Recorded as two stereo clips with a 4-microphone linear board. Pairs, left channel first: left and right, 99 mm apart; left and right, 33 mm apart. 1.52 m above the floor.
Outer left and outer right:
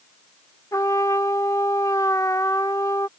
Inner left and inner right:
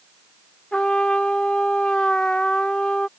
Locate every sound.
0.7 s a trumpet: 35° left (ahead or behind)